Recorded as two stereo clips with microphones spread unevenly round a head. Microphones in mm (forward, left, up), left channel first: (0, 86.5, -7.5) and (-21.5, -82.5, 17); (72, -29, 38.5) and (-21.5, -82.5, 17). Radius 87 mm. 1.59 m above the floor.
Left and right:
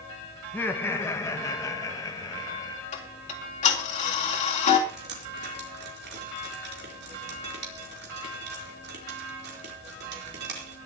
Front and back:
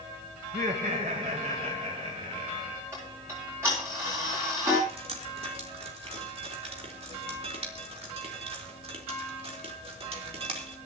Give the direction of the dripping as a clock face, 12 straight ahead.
4 o'clock.